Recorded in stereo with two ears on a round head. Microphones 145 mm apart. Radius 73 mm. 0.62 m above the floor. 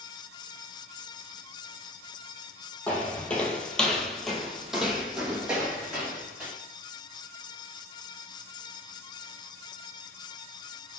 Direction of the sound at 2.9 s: 10° left (ahead or behind).